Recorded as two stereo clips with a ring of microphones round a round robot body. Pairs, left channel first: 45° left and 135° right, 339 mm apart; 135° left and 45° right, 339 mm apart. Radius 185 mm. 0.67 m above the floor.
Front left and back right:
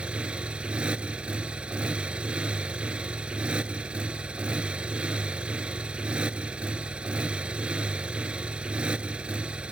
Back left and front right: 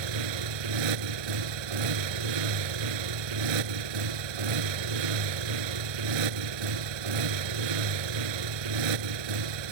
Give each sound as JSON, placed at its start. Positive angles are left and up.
{"t": 0.0, "sound": "a motorcycle", "azimuth_deg": -50}